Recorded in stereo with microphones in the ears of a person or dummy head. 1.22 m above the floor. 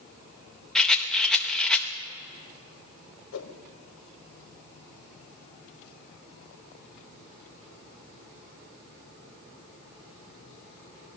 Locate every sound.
0.8 s a rattle: 5° left (ahead or behind), 0.6 m
3.3 s a whoosh: 85° left, 1.1 m